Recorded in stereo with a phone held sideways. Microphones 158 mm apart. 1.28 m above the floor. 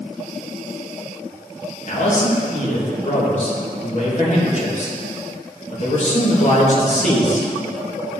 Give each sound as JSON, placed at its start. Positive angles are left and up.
{"t": 1.9, "sound": "a man speaking", "side_deg": 50, "distance_m": 1.7}